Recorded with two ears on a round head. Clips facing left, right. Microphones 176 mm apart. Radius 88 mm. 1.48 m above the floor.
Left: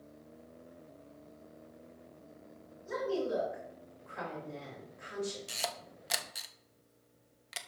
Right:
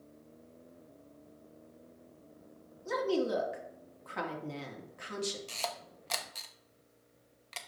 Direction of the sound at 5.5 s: 10° left (ahead or behind).